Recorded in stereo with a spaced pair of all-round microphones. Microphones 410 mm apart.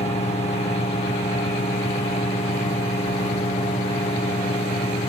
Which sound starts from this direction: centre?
A fan, at 0.0 s.